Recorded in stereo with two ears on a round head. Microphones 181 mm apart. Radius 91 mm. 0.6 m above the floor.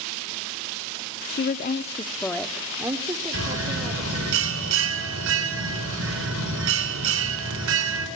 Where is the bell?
75° right (ahead or behind), 4 m.